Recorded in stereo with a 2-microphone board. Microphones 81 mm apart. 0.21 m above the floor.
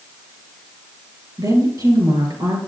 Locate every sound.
1.4 s a woman speaking: 50° right (ahead or behind), 4 m